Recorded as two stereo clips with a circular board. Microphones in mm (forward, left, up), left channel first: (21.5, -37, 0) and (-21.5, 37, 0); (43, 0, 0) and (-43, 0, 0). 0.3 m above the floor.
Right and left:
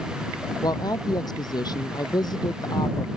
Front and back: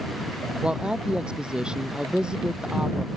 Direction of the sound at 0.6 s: 100° right.